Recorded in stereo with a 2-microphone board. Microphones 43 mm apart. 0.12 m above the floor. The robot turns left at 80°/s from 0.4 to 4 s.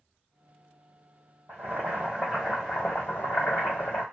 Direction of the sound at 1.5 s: 105° right.